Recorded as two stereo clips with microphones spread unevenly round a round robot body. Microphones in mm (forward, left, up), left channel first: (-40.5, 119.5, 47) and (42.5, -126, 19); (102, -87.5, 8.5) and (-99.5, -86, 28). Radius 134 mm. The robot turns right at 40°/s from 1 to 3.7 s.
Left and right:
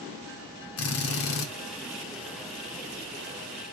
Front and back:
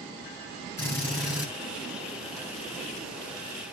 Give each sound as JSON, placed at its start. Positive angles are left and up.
{"t": 0.8, "sound": "a drill", "azimuth_deg": 80, "distance_m": 1.2}